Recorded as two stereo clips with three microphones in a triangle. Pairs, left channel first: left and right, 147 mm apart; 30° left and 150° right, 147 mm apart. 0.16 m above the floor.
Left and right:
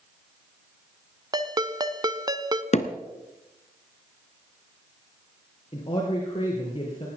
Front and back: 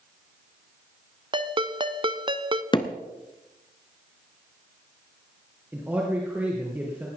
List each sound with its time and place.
1.3 s a ringtone: 130° right, 0.7 m
2.7 s hammering: 75° left, 1.1 m
5.7 s a man speaking: 135° left, 3.5 m